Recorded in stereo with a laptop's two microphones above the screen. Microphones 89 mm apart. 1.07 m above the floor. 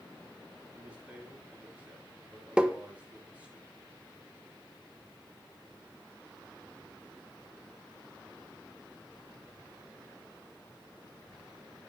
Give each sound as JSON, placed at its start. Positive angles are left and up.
{"t": 0.7, "sound": "a man speaking", "side_deg": -15, "distance_m": 7.5}
{"t": 2.6, "sound": "tapping", "side_deg": -10, "distance_m": 1.2}